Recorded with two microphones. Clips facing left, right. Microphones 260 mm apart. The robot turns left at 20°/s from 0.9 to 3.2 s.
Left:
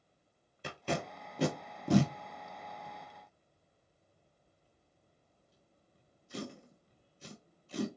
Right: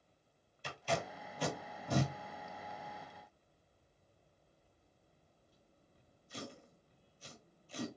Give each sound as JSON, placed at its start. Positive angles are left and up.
{"t": 0.6, "sound": "tape being pulled", "side_deg": 60, "distance_m": 0.8}